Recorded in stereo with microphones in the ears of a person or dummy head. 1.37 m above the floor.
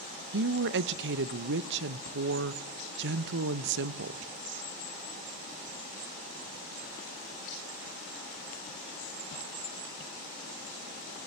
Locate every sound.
0.3 s a woman speaking: 60° right (ahead or behind), 1.0 m